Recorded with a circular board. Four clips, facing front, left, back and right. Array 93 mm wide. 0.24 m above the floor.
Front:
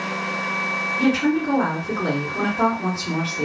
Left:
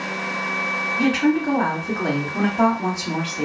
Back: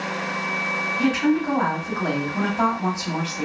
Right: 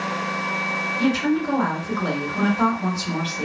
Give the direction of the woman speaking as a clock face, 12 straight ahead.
8 o'clock.